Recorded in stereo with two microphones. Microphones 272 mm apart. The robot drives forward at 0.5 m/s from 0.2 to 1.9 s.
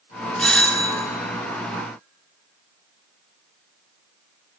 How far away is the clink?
No clink in this recording.